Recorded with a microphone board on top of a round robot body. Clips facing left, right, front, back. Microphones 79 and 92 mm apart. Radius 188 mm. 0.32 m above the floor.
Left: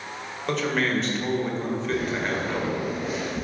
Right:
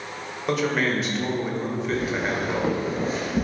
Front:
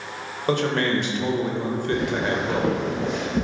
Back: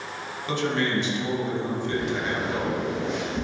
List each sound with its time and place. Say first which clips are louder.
0.5 s a man speaking: right 1 dB, front 4 dB; 5° right, 2 m
1.9 s footsteps: right 2 dB, front 5 dB; 10° left, 1.6 m; by 3.4 s 45° right, 2.0 m